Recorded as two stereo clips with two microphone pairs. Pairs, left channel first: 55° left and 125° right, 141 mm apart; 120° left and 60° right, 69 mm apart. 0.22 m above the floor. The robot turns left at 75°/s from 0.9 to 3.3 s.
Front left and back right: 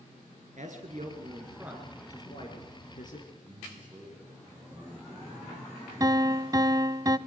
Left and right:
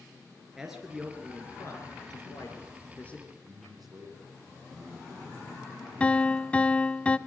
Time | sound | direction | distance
0.6 | a man speaking | 145° right | 3 m
3.3 | a man speaking | 40° right | 10 m
6.0 | a piano | straight behind | 0.6 m